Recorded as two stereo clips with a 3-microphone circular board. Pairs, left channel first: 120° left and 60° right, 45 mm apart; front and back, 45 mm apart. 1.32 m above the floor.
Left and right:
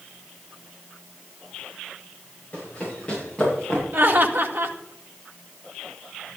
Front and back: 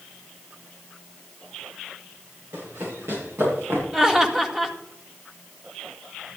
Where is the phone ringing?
No phone ringing in this recording.